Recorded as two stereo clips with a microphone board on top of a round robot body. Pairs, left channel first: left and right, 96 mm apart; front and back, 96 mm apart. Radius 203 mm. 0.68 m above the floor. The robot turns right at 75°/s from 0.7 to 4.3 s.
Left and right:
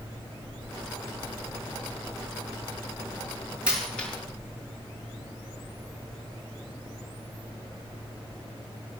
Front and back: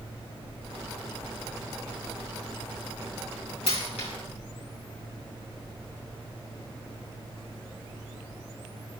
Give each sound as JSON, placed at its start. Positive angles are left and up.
{"t": 3.7, "sound": "a dropped coin", "azimuth_deg": -15, "distance_m": 4.0}